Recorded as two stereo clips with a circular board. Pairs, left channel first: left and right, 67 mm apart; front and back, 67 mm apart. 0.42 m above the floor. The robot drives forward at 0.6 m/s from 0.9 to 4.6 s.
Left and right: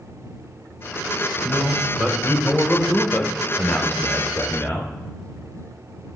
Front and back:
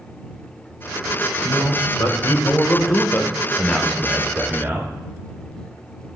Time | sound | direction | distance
1.4 | a man speaking | 15° left | 1.7 m